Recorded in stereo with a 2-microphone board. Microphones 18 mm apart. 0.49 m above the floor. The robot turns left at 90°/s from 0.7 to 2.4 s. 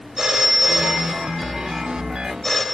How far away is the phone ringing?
About 1.0 m.